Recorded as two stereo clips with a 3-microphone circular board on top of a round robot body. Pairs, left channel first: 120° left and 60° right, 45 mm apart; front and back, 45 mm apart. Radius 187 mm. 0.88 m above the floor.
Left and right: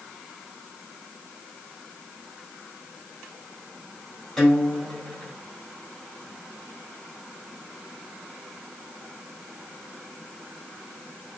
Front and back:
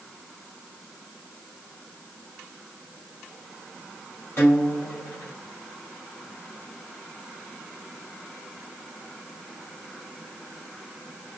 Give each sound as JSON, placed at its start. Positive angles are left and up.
{"t": 4.4, "sound": "a guitar", "azimuth_deg": 40, "distance_m": 2.0}